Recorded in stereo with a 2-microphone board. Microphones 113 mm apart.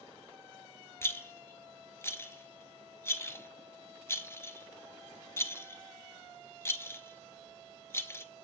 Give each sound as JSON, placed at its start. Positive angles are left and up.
{"t": 1.0, "sound": "a rattle", "side_deg": 20, "distance_m": 0.5}